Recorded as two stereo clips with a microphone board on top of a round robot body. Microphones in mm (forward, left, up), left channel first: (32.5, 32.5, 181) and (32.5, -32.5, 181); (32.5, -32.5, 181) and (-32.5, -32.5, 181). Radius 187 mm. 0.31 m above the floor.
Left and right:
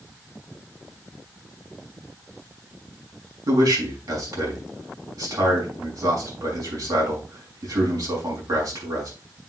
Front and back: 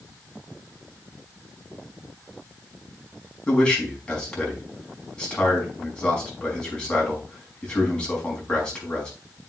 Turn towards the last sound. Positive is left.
turn(degrees=-75)